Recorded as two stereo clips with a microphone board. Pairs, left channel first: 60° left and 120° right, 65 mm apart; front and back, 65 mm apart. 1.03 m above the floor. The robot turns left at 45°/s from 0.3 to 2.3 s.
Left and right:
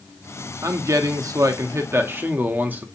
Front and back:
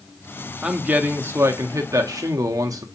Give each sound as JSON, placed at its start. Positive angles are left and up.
{"t": 0.6, "sound": "a man speaking", "azimuth_deg": -105, "distance_m": 0.7}